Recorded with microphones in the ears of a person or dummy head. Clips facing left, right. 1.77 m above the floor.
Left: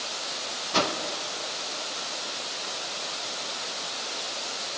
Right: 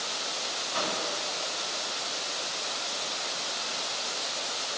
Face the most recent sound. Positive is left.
turn(degrees=70)  # may be behind; listen again after turning